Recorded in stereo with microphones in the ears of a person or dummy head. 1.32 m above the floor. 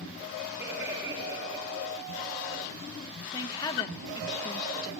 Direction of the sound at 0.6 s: 5° right (ahead or behind).